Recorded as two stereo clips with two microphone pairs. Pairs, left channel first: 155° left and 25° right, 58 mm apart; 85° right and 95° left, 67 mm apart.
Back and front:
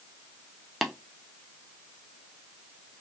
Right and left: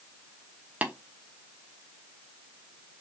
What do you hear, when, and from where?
0.8 s tapping: 60° left, 0.6 m